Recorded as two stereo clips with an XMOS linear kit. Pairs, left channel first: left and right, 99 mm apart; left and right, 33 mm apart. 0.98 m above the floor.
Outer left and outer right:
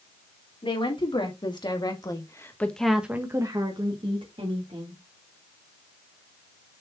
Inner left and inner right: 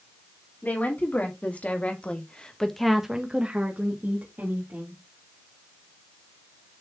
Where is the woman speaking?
60° left (ahead or behind), 3.5 m; by 5.0 s 75° right (ahead or behind), 3 m.